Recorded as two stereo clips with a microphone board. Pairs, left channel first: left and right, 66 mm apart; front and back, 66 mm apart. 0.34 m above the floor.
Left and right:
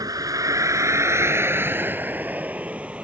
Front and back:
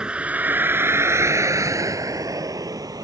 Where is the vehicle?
105° right; by 3.0 s 165° right.